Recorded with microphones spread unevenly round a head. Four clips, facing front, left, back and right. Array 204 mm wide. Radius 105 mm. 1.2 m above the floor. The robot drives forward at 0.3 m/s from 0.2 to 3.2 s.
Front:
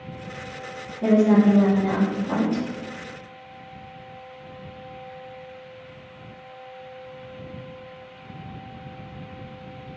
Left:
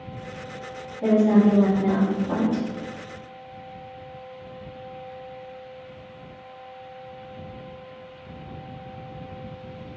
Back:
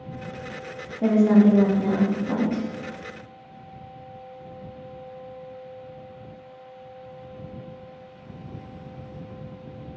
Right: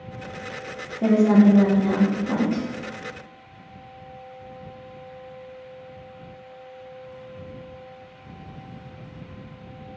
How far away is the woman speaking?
About 1.2 m.